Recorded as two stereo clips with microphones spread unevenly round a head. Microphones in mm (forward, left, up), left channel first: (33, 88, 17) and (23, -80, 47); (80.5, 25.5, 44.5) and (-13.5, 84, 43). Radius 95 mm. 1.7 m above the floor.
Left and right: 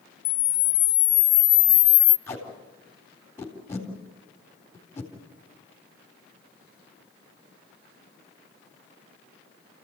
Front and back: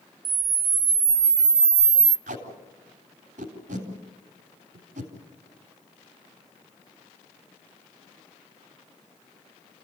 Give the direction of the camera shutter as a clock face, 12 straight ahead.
8 o'clock.